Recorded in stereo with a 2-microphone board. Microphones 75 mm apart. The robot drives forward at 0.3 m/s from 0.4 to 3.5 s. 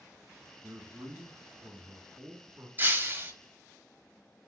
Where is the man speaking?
55° right (ahead or behind), 2 m; by 2.7 s 60° right (ahead or behind), 2.0 m.